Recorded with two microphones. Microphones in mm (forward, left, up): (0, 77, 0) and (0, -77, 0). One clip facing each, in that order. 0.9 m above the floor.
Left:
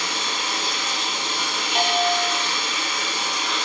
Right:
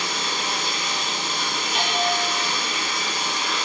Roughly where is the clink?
No clink in this recording.